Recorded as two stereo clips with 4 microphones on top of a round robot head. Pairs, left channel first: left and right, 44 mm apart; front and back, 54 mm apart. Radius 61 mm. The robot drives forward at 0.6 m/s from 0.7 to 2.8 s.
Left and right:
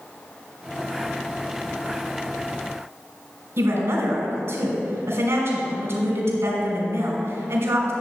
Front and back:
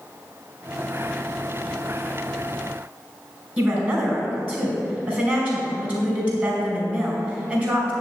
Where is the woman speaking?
120° right, 2.5 m.